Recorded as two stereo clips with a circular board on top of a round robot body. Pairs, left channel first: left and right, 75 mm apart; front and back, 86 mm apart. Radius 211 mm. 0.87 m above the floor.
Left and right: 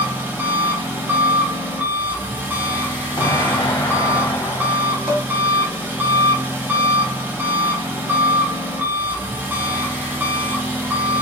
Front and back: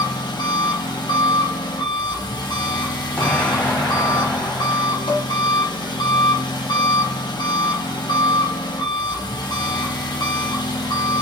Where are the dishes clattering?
25° right, 1.4 m.